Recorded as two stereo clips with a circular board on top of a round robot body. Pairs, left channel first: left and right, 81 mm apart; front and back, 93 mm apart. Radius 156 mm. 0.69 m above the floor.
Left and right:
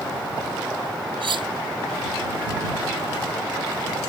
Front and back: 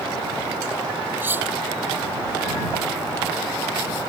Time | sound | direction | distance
1.2 | cutlery clinking | 110° right | ?